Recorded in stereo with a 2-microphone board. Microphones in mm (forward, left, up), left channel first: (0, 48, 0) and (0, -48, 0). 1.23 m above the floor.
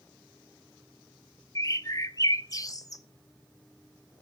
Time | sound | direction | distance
1.6 | a bird | 35° left (ahead or behind) | 0.9 m